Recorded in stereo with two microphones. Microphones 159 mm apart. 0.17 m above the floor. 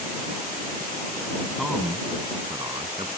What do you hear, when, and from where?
1.6 s a man speaking: centre (ahead or behind); by 3.1 s 35° right (ahead or behind)